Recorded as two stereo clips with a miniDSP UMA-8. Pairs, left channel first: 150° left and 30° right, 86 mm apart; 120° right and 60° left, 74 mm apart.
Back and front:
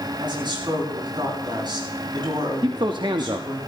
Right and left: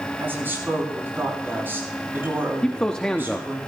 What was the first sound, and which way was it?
A woman speaking, straight ahead.